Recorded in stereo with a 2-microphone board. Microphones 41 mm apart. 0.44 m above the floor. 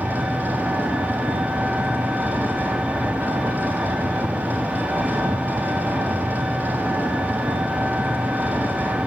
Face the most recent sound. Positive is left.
turn(degrees=-45)  # may be behind; listen again after turning